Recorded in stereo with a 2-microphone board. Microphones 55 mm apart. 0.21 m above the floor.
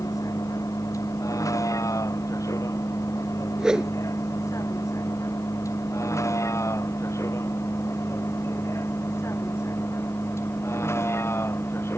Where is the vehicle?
75° left (ahead or behind); by 12.0 s 45° left (ahead or behind).